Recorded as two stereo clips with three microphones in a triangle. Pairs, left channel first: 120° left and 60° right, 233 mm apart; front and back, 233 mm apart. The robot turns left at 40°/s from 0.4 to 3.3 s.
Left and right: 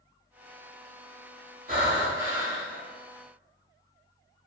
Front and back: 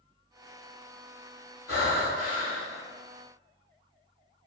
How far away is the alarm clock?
I don't hear an alarm clock.